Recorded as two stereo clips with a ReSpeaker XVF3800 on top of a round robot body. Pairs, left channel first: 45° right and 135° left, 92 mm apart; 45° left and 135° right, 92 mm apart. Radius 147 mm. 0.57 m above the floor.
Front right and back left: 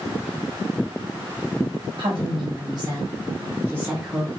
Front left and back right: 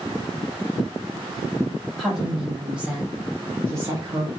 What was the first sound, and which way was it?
A woman speaking, 135° left.